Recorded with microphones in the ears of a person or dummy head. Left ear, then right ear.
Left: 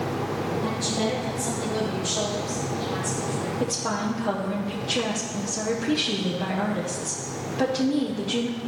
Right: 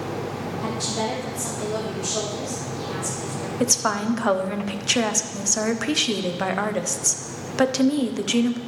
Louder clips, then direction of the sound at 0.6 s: Right 4 dB; 60° right (ahead or behind).